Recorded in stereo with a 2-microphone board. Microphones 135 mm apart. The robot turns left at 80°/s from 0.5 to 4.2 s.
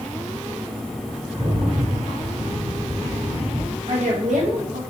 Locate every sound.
1.3 s a rattle: 40° right, 2.5 m; by 3.8 s 120° left, 2.5 m
3.9 s a woman speaking: 45° right (ahead or behind), 1.5 m; by 4.8 s 70° right (ahead or behind), 1.5 m